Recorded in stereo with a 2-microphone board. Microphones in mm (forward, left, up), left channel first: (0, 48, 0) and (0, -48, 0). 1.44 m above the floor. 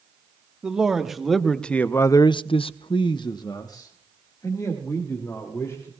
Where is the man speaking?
10° right (ahead or behind), 1.8 m; by 5.9 s 30° left (ahead or behind), 3.5 m.